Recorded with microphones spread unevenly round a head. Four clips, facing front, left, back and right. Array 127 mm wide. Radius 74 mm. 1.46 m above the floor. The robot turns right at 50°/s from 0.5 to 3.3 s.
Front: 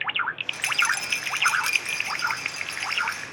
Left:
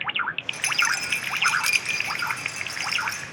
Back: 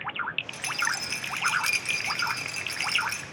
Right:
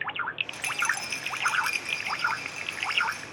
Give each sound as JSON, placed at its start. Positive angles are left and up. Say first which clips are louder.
{"t": 0.5, "sound": "a rattle", "louder": "left 4 dB, front 4 dB", "azimuth_deg": 40, "distance_m": 0.9}